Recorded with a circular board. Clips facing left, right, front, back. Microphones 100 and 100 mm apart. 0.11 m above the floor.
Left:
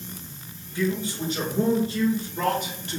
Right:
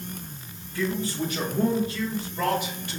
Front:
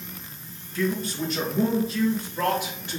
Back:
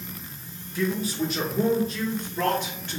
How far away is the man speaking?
About 1.6 m.